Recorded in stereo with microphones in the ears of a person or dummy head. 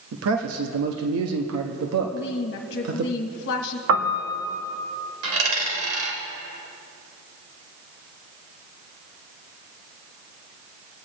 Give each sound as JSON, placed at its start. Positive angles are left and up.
{"t": 0.1, "sound": "a man speaking", "side_deg": -90, "distance_m": 1.1}
{"t": 2.1, "sound": "a woman speaking", "side_deg": 65, "distance_m": 1.4}
{"t": 3.9, "sound": "a piano", "side_deg": -80, "distance_m": 1.5}
{"t": 5.2, "sound": "a dropped coin", "side_deg": -70, "distance_m": 3.5}